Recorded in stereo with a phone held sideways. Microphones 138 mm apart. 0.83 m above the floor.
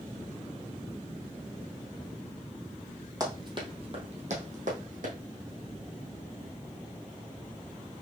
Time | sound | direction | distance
3.2 | running footsteps | 25° right (ahead or behind) | 1.9 m